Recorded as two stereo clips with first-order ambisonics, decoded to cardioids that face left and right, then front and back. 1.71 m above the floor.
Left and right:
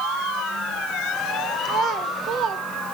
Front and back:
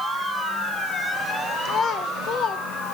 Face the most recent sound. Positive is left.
turn(degrees=-45)